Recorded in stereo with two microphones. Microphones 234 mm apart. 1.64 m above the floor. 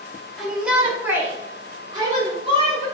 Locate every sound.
0.4 s a shout: centre (ahead or behind), 2 m; by 2.9 s 25° right (ahead or behind), 3 m